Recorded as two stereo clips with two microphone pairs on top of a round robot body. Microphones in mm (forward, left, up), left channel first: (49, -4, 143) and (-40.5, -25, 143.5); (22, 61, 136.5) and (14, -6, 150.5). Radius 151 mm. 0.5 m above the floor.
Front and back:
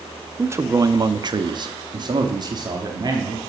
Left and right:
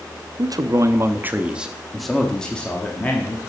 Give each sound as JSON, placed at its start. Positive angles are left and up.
{"t": 0.4, "sound": "a man speaking", "azimuth_deg": -110, "distance_m": 0.8}